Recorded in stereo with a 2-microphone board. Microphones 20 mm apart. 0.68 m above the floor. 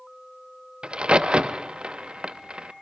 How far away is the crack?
About 0.7 m.